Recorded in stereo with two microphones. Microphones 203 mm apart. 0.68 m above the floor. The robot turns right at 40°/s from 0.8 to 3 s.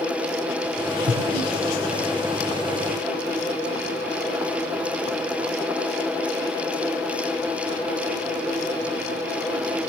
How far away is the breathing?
About 3.5 m.